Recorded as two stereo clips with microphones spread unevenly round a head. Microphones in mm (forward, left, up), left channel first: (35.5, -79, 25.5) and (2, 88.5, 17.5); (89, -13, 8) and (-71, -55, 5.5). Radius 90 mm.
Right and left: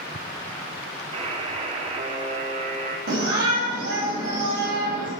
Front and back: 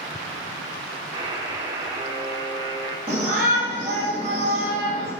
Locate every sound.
1.1 s a buzzer: 135° left, 0.7 m
3.1 s a shout: 115° left, 2 m